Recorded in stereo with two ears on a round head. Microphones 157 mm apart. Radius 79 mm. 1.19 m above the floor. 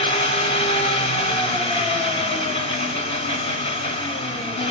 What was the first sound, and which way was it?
An engine running, 35° left (ahead or behind).